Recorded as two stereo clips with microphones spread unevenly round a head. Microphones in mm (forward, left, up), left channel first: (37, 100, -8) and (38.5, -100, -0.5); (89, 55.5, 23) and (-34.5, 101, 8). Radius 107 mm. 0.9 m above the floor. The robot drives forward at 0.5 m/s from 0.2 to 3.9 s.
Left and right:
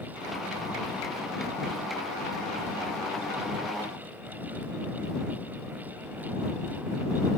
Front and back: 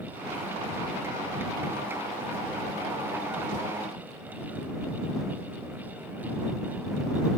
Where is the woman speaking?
No woman speaking in this recording.